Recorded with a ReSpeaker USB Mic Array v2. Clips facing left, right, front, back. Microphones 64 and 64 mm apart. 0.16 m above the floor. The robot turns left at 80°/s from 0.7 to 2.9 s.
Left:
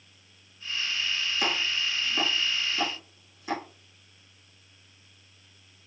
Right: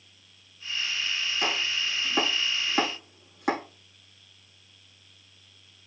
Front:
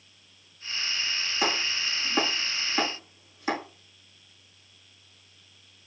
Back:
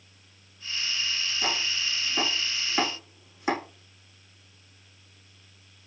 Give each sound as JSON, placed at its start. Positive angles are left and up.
{"t": 1.4, "sound": "chopping", "azimuth_deg": 10, "distance_m": 7.0}